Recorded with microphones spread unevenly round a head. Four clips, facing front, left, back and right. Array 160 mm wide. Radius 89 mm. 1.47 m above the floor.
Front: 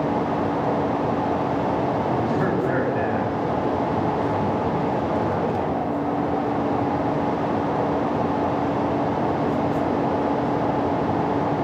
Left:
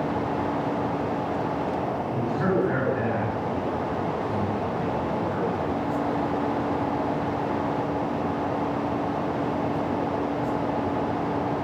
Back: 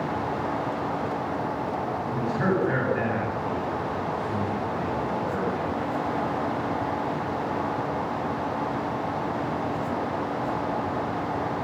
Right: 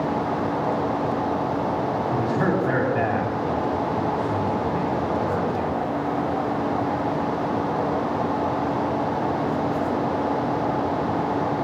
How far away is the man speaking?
About 9.5 m.